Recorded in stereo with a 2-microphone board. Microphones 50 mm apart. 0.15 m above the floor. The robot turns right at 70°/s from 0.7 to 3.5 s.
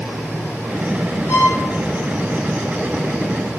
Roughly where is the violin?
Left.